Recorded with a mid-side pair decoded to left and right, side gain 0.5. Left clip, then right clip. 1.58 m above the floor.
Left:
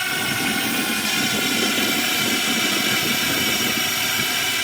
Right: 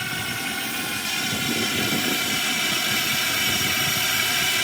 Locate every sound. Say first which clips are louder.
0.0 s a drone: left 5 dB; 30° left; by 4.7 s 5° right